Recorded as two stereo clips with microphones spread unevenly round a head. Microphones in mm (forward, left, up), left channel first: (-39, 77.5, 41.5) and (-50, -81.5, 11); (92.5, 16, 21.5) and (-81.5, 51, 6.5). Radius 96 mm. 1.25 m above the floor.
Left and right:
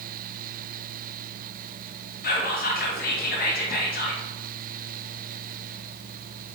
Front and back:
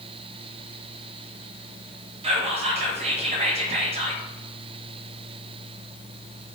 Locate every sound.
2.2 s whispering: 115° left, 0.7 m